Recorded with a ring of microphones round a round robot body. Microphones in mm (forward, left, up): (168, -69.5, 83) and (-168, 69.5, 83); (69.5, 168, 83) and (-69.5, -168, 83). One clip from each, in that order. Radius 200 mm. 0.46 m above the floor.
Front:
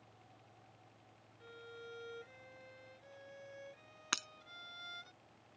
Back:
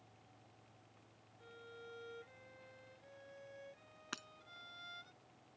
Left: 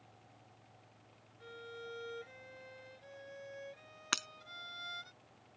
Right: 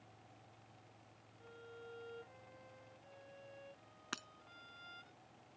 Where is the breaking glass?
20° left.